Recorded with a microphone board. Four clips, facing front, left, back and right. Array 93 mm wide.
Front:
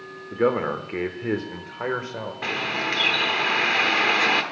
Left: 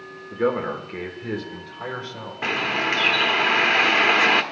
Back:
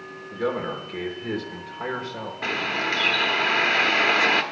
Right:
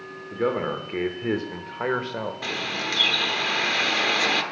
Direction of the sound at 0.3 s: 10° left.